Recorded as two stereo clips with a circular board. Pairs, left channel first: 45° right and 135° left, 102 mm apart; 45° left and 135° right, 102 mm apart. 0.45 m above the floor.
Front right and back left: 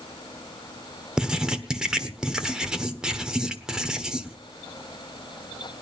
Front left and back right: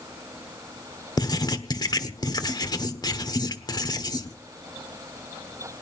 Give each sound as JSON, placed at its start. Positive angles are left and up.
{"t": 1.2, "sound": "writing", "azimuth_deg": 55, "distance_m": 1.2}